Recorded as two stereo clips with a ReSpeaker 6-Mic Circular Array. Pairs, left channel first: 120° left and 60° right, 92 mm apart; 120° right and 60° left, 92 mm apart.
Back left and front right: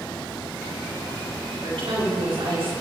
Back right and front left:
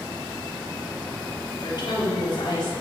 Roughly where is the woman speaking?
Right.